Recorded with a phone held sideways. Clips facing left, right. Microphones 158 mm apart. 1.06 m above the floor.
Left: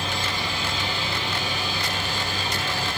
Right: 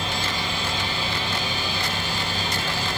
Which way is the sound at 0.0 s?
45° right (ahead or behind).